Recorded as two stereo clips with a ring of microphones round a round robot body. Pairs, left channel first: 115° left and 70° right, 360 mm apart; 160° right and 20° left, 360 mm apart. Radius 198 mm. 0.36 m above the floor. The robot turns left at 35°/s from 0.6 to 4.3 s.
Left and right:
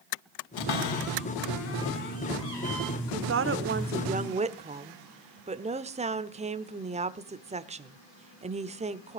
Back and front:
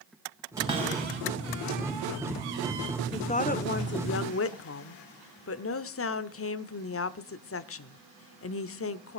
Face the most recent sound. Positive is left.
turn(degrees=-130)